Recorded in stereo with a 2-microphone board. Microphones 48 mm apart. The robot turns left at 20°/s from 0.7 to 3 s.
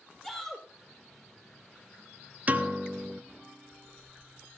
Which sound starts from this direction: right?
A piano, at 2.5 s.